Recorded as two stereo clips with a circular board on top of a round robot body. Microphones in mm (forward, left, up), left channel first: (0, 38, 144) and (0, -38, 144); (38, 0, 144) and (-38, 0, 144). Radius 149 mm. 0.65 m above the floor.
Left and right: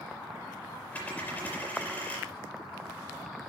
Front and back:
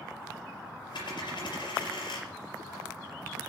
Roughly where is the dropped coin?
Ahead.